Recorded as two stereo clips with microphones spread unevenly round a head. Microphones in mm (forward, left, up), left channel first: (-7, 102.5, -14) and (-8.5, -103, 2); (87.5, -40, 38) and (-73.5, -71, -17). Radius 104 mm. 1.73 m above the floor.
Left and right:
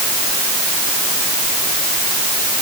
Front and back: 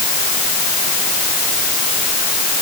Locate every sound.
Only background noise.